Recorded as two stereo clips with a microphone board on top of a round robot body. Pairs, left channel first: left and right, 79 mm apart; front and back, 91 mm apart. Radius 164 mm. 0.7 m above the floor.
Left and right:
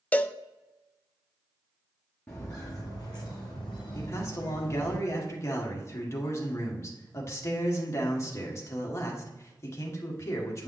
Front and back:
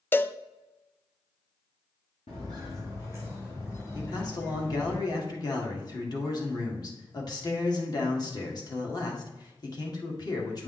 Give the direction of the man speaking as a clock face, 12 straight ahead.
11 o'clock.